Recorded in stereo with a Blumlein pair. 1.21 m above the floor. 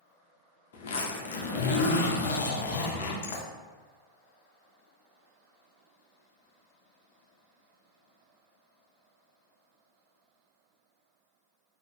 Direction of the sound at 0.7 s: 60° left.